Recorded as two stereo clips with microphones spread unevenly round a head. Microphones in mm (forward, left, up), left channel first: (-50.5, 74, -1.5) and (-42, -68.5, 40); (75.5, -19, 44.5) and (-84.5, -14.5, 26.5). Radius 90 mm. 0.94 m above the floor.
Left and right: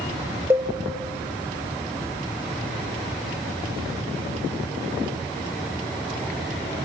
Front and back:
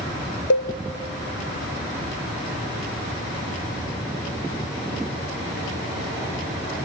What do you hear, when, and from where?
0.5 s a cowbell: 5° right, 0.7 m